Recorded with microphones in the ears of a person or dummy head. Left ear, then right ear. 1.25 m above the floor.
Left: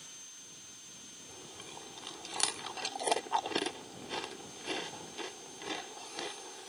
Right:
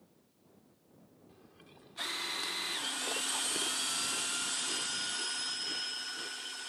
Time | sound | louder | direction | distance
1.3 | chewing | left 11 dB | 30° left (ahead or behind) | ?